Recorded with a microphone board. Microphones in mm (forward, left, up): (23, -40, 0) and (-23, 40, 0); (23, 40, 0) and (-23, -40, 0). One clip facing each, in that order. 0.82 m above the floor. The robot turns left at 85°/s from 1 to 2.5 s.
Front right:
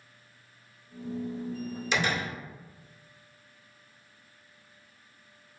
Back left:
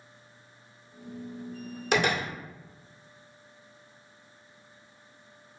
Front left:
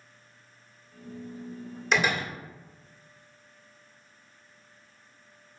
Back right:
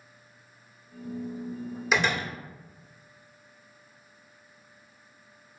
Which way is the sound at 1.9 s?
155° left.